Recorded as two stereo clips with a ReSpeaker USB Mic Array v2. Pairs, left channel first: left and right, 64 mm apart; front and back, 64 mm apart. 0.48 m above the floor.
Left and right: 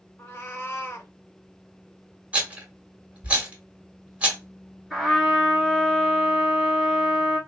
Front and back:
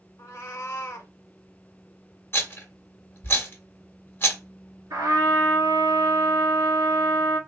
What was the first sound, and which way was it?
A cat meowing, 40° left.